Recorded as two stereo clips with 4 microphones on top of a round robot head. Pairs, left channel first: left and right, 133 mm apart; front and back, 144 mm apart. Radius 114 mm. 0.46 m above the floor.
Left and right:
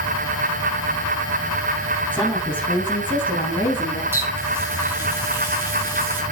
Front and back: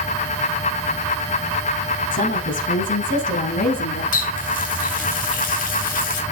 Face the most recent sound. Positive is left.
turn(degrees=-15)